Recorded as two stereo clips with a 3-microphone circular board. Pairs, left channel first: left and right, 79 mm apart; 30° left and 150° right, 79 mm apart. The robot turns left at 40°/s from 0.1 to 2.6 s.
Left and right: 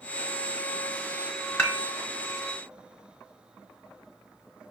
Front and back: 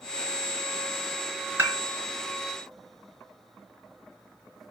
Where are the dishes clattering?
155° left, 2.5 m; by 1.8 s 145° left, 2.5 m.